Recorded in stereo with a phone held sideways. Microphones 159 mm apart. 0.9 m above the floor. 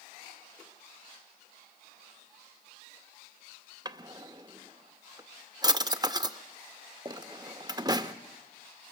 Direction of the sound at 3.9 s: 25° right (ahead or behind).